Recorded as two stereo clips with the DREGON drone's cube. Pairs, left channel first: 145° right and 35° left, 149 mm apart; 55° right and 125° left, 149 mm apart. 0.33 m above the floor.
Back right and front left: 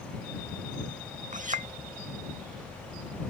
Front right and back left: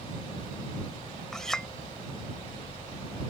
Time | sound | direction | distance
1.3 | a clink | 30° left | ?